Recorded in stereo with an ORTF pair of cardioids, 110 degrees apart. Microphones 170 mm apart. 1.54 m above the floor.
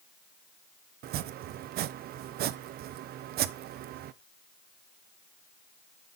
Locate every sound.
1.0 s chopping: 65° right, 0.6 m